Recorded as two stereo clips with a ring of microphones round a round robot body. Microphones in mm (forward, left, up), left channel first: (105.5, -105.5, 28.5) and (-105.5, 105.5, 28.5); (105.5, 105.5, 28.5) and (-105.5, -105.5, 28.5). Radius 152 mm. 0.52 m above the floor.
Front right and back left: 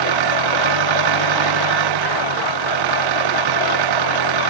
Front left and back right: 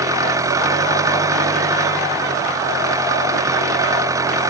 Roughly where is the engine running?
Behind left.